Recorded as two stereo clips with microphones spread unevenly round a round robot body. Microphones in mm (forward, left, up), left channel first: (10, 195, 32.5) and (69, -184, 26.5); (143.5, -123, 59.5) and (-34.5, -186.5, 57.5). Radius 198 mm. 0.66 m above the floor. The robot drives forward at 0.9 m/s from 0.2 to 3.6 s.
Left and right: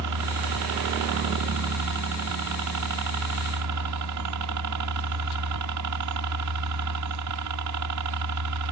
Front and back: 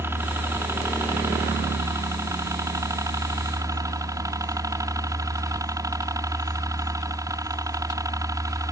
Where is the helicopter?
90° right; by 8.7 s 95° right.